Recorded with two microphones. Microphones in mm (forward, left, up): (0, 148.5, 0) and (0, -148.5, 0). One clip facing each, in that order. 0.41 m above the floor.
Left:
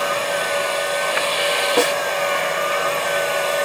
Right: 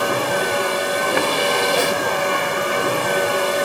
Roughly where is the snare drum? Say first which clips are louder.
Left 2 dB; left.